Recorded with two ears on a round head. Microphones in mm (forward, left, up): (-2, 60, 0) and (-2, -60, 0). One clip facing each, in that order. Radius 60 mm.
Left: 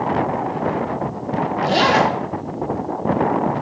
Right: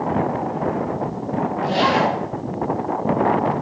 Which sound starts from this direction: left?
A zipper, at 1.6 s.